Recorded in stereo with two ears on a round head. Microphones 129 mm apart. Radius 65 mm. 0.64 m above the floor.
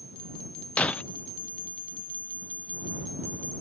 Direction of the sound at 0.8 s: 10° left (ahead or behind).